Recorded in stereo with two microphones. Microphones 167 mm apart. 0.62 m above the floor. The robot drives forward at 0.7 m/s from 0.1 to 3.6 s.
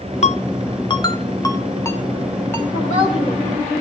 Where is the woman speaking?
50° left (ahead or behind), 3.5 m; by 3.4 s 55° left (ahead or behind), 3.5 m.